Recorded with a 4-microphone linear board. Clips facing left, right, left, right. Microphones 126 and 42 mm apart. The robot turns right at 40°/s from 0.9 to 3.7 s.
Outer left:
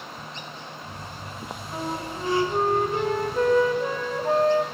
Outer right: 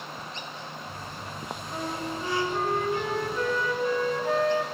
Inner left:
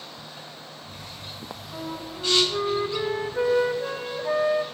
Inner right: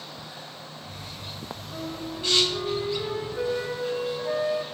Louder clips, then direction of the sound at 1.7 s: Outer left 2 dB, even; 20° left.